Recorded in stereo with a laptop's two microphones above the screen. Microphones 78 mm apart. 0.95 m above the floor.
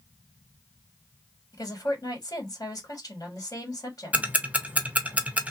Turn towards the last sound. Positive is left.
turn(degrees=-20)  # may be behind; listen again after turning